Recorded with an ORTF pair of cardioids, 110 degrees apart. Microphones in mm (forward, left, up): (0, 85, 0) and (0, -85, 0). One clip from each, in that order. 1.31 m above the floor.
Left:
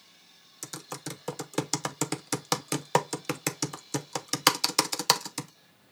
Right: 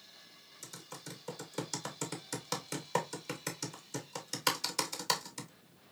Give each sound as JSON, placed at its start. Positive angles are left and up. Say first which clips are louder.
{"t": 0.6, "sound": "typing on a keyboard", "louder": "left 9 dB", "azimuth_deg": 55, "distance_m": 0.8}